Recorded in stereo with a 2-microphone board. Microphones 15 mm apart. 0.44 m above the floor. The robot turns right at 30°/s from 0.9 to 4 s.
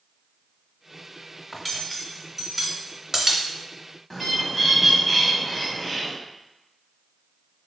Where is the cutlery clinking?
15° left (ahead or behind), 0.6 m; by 3.4 s 25° right (ahead or behind), 0.6 m.